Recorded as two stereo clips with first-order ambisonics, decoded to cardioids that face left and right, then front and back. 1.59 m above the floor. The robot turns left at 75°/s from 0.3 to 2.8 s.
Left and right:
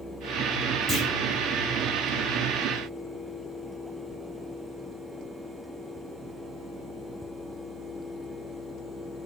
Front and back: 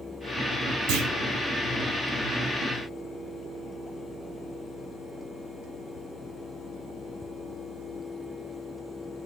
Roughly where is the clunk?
Behind.